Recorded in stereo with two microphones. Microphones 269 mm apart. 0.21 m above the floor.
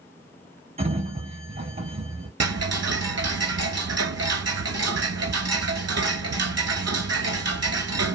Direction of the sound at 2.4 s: 65° right (ahead or behind).